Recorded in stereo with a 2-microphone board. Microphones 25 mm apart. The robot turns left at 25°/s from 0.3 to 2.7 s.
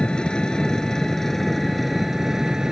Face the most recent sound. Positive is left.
turn(degrees=-20)